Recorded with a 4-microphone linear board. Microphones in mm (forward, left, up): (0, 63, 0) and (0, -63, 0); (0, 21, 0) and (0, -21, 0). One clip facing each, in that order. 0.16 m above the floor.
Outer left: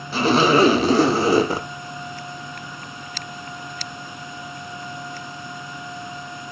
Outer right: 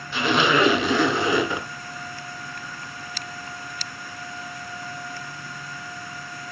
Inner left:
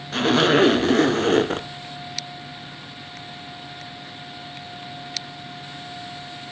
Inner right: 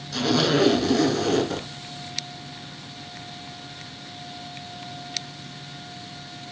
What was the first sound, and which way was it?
A zipper, 40° left (ahead or behind).